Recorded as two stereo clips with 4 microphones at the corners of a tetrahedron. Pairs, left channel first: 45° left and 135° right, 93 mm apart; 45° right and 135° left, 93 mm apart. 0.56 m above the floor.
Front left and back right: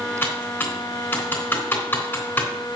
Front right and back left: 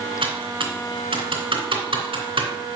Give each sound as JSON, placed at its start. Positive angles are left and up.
{"t": 0.2, "sound": "typing on a keyboard", "azimuth_deg": 115, "distance_m": 3.0}